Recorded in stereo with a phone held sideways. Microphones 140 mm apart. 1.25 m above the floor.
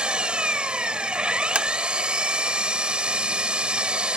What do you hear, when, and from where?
0.0 s an engine running: 5° right (ahead or behind)
1.6 s tapping: 5° right (ahead or behind)